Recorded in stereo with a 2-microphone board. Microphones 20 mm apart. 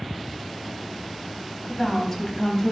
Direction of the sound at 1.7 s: 10° left (ahead or behind).